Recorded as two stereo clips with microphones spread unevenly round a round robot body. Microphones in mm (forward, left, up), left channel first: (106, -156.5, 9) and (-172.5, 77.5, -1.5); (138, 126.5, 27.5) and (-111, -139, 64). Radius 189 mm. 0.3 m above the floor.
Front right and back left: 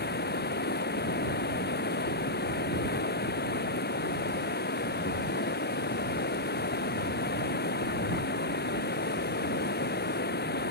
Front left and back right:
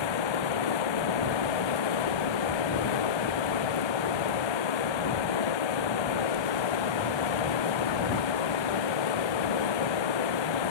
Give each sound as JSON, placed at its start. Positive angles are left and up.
{"t": 0.0, "sound": "running water", "azimuth_deg": 30}